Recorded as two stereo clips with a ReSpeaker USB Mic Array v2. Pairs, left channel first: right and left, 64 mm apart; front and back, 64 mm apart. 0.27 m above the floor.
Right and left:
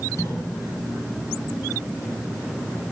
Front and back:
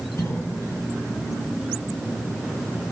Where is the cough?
45° right, 7 m.